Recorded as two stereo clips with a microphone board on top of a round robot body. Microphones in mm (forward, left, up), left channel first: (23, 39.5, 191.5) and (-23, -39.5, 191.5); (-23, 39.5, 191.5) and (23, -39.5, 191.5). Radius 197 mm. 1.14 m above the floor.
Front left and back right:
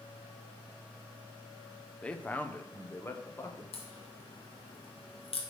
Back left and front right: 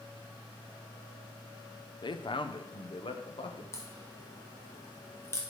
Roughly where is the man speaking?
Behind left.